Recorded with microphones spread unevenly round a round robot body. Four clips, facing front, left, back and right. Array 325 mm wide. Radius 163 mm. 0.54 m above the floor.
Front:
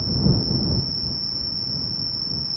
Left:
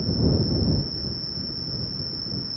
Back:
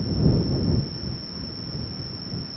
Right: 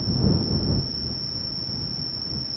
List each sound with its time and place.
0.0 s an insect: 25° left